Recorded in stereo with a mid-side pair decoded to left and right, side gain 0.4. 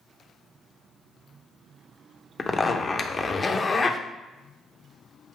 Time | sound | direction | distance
2.4 | a zipper | 35° left | 0.6 m